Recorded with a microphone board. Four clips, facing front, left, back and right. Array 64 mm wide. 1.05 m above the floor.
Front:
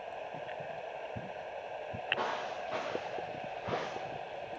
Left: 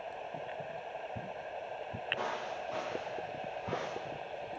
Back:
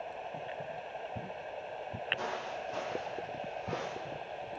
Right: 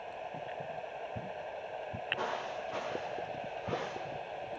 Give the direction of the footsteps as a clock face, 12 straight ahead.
12 o'clock.